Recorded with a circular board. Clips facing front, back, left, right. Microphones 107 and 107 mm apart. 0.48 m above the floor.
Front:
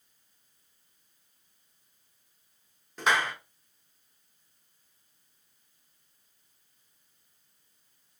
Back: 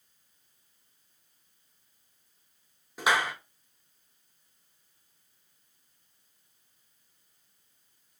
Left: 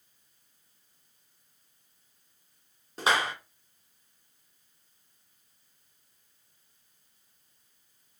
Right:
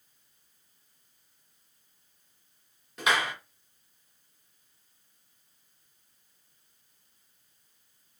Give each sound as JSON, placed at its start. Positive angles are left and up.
{"t": 3.0, "sound": "a clap", "azimuth_deg": 105, "distance_m": 0.7}